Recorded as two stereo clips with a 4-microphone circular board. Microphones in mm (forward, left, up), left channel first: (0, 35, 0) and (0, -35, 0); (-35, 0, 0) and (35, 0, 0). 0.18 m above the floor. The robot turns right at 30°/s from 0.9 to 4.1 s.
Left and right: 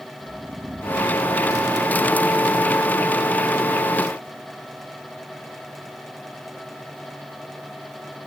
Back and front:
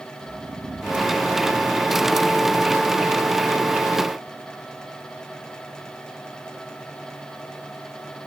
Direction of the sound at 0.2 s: 30° right.